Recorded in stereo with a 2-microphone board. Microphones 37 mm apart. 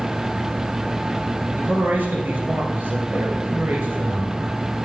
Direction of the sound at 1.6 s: 55° right (ahead or behind).